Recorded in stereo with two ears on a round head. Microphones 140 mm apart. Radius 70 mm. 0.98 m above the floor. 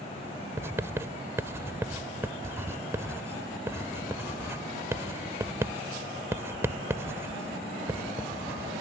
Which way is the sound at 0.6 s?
15° right (ahead or behind).